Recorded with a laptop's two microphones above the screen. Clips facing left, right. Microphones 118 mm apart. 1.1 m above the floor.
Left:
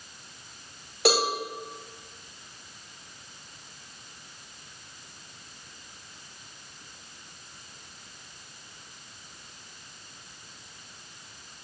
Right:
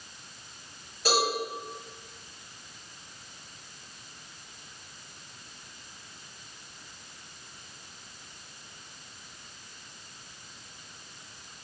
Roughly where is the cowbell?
Left.